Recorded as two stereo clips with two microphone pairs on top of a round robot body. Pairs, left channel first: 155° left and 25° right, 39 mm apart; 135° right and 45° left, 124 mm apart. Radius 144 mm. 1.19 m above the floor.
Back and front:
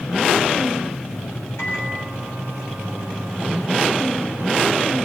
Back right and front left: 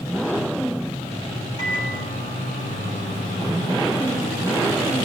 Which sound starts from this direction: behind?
A microwave, at 1.6 s.